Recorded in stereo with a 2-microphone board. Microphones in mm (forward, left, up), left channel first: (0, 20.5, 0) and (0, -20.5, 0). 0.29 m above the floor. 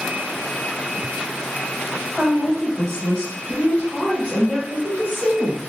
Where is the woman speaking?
10° left (ahead or behind), 1.8 m; by 5.7 s 45° left (ahead or behind), 1.8 m.